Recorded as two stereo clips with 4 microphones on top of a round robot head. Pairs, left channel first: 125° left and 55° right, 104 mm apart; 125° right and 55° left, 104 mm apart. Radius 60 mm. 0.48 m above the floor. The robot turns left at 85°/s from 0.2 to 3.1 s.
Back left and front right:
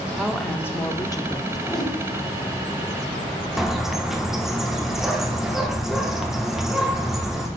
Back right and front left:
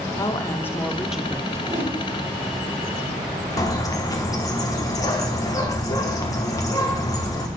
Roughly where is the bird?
Behind right.